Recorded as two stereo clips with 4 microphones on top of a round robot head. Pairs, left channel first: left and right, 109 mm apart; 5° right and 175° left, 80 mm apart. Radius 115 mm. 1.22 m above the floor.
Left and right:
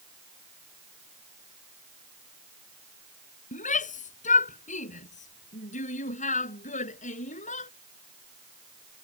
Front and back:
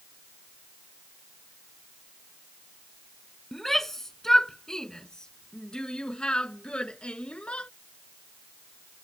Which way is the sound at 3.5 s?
80° left.